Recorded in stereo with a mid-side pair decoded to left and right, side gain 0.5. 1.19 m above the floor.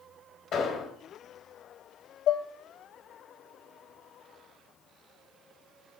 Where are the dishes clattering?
60° left, 0.7 m.